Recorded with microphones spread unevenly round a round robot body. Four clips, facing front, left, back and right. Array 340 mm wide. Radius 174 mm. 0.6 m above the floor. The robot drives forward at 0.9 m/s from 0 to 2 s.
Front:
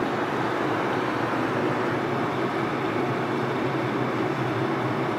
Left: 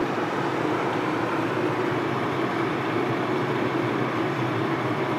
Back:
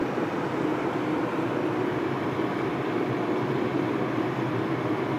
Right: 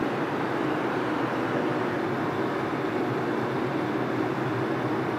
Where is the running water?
65° left, 4.5 m; by 5.2 s 90° left, 4 m.